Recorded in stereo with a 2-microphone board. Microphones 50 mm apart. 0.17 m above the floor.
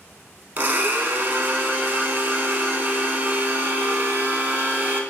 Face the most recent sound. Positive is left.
turn(degrees=-45)  # may be behind; listen again after turning